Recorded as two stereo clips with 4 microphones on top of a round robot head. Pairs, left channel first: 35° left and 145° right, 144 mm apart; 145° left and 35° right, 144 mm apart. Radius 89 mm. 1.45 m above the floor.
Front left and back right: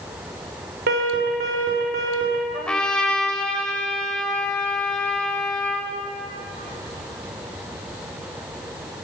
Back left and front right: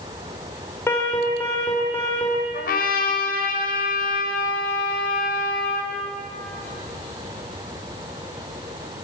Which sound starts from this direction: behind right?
An alarm, at 0.9 s.